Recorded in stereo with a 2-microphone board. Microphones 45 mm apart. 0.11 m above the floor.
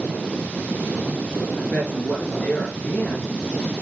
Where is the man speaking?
35° left (ahead or behind), 2 m.